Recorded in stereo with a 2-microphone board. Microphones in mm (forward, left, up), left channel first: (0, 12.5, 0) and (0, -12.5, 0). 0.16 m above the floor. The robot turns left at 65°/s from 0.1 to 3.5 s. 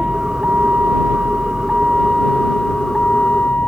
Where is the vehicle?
30° right; by 3.7 s 105° left.